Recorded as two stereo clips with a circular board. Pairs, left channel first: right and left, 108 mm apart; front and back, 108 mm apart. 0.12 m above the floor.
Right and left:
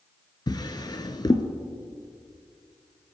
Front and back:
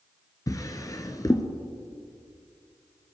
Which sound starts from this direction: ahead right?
A drawer, at 0.5 s.